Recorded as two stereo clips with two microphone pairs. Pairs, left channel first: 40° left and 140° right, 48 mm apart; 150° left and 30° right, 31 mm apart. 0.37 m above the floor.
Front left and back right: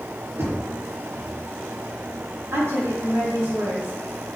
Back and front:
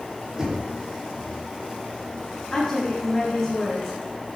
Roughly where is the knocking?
Right.